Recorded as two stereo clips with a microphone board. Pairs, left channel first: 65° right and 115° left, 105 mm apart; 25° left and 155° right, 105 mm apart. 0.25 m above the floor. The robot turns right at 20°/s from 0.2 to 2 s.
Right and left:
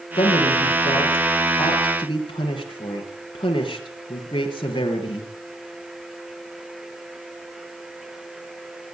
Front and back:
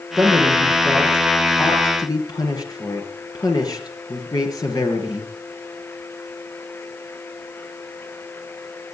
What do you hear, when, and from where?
0.2 s a man speaking: 65° right, 5 m; by 5.3 s 30° right, 5 m